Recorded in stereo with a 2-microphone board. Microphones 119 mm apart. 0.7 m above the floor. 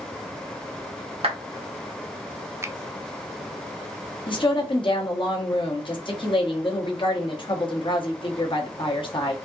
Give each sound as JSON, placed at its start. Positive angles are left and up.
{"t": 1.2, "sound": "a clap", "side_deg": -50, "distance_m": 1.4}
{"t": 2.6, "sound": "a finger snap", "side_deg": -25, "distance_m": 0.5}
{"t": 4.3, "sound": "a woman speaking", "side_deg": 45, "distance_m": 1.1}